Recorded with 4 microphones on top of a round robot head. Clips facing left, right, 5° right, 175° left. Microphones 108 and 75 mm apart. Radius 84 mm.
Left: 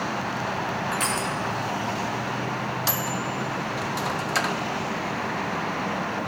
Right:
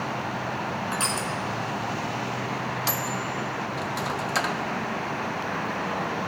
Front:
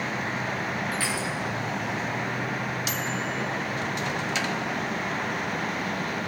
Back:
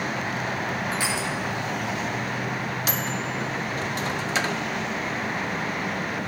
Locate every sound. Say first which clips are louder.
0.9 s crushing: left 2 dB, back 2 dB; 130° right, 1.6 m
2.9 s a microwave: left 1 dB, back 1 dB; straight behind, 0.6 m